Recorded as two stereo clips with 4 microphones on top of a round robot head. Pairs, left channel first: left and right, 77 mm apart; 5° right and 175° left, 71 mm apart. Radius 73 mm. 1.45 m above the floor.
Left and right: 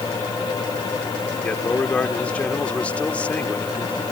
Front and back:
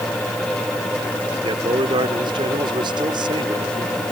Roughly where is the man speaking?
Behind.